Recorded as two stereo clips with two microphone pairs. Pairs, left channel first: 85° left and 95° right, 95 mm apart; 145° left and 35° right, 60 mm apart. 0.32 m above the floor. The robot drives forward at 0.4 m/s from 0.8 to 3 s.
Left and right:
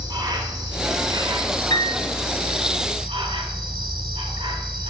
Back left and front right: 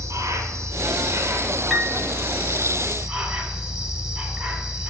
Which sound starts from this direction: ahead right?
An insect, at 0.0 s.